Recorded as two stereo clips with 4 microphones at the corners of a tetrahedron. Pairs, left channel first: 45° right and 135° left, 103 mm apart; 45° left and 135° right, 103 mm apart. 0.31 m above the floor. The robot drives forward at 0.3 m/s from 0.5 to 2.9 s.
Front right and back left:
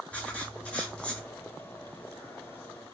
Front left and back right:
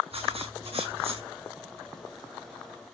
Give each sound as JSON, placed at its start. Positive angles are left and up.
{"t": 0.1, "sound": "writing", "azimuth_deg": -125, "distance_m": 4.0}